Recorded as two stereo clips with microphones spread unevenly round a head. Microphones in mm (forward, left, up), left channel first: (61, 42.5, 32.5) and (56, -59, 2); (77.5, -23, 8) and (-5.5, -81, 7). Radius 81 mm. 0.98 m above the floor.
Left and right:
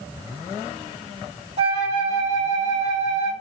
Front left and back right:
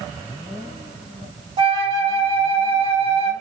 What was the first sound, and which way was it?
A flute, 115° right.